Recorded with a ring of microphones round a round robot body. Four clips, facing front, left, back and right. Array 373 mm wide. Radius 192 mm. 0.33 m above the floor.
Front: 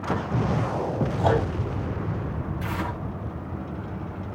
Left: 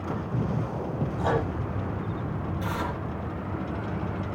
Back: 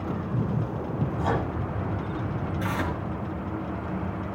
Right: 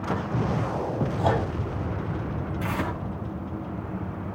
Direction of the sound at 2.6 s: 110° right.